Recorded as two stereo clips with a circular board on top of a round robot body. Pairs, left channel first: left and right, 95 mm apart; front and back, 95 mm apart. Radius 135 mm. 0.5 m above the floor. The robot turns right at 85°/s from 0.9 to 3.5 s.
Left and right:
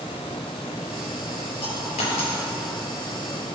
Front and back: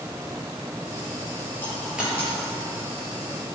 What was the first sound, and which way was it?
A dropped coin, 65° left.